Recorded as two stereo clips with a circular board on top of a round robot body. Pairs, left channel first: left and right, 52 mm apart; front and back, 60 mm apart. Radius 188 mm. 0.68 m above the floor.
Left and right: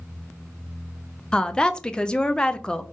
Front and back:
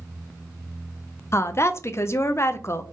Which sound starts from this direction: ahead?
A woman speaking, at 1.3 s.